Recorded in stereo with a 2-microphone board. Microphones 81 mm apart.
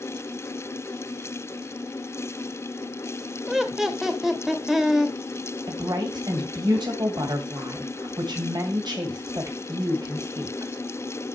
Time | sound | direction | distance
3.5 | laughter | 5° right (ahead or behind) | 1.2 m
5.7 | a woman speaking | 65° right (ahead or behind) | 2 m